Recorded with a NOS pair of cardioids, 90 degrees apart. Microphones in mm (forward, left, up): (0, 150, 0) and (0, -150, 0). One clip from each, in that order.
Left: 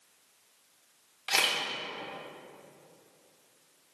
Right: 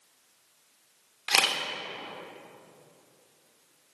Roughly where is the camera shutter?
Ahead.